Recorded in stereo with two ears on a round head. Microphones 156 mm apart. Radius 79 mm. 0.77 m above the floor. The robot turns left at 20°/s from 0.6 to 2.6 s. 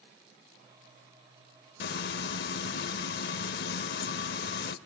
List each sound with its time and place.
1.8 s frying: 60° left (ahead or behind), 0.7 m